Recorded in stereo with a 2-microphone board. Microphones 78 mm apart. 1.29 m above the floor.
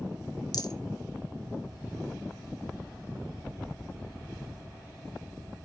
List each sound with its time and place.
0.5 s a rattle: 60° left (ahead or behind), 0.7 m